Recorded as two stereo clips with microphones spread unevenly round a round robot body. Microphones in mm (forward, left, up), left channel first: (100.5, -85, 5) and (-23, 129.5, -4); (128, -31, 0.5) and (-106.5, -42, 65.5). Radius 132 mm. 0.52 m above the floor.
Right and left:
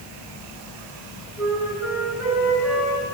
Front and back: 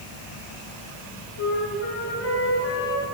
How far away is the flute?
About 7 m.